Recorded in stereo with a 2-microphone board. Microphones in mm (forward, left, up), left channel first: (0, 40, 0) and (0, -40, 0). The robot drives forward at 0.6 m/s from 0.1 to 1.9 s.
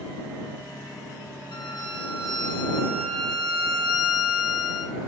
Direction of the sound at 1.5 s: 80° left.